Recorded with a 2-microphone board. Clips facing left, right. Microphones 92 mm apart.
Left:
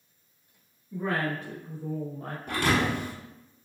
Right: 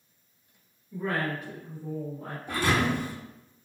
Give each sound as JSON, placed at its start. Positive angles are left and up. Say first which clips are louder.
{"t": 0.9, "sound": "a woman speaking", "louder": "left 1 dB", "side_deg": 20, "distance_m": 1.4}
{"t": 2.5, "sound": "a thud", "louder": "even", "side_deg": 60, "distance_m": 1.3}